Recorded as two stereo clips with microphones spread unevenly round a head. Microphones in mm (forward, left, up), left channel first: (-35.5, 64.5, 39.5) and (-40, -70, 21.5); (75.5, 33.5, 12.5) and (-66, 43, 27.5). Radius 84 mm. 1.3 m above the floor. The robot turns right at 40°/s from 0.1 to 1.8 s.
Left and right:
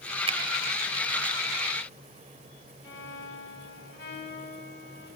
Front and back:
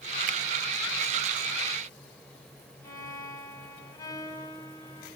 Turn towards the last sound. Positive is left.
turn(degrees=65)